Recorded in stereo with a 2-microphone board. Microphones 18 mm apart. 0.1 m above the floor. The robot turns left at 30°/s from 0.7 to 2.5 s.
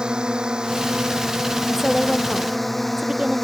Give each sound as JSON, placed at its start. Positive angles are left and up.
{"t": 0.0, "sound": "a drone", "side_deg": -55}
{"t": 1.7, "sound": "a woman speaking", "side_deg": -5}